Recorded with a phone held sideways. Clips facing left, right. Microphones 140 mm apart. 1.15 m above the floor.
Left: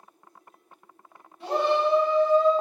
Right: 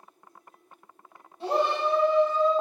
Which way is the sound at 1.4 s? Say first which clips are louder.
Left 2 dB; 30° right (ahead or behind).